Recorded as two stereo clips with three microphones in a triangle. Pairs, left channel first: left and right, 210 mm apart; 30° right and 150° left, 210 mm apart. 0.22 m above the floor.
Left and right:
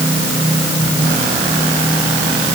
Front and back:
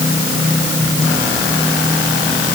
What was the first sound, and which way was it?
Only background noise.